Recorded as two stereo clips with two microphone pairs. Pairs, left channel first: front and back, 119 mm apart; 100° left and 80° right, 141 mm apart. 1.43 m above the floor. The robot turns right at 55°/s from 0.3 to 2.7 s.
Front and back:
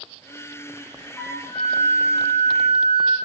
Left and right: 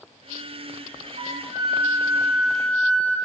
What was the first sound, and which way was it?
A flute, 70° right.